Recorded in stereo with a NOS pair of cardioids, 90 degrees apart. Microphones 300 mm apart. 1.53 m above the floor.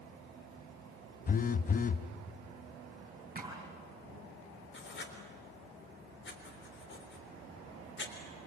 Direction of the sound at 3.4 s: 30° right.